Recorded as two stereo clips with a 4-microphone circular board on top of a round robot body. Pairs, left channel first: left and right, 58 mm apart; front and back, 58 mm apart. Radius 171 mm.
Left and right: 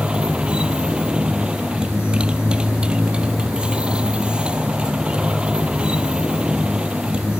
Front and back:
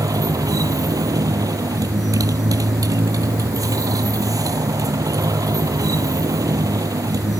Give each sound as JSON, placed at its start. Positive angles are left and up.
{"t": 0.0, "sound": "a motorcycle", "azimuth_deg": -165}